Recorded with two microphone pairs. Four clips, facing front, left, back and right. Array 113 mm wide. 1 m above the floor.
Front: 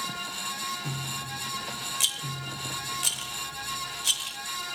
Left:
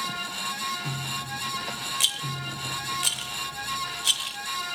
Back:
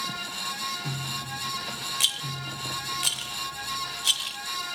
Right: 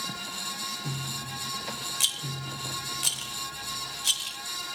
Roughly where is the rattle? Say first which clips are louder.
Left 4 dB, back 1 dB; behind left.